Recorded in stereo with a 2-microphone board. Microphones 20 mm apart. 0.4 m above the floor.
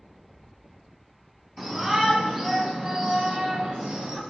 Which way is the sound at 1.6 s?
25° right (ahead or behind).